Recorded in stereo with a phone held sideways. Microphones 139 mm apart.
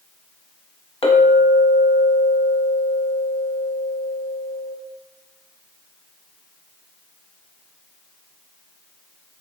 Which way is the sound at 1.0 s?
40° left (ahead or behind).